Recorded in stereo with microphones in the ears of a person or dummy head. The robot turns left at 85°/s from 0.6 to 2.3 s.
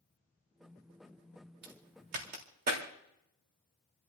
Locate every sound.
1.6 s a crack: 60° right (ahead or behind), 3 m; by 2.9 s 50° right (ahead or behind), 3 m